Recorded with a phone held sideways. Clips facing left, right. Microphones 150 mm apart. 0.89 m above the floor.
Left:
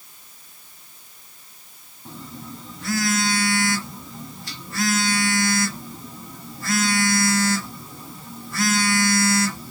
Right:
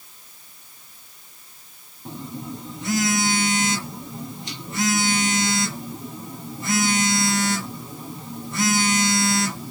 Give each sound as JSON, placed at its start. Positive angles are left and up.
{"t": 2.0, "sound": "a phone buzzing", "side_deg": -20, "distance_m": 1.3}